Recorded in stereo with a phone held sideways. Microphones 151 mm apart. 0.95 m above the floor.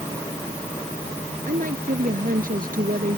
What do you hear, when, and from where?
1.5 s a woman speaking: 65° right (ahead or behind)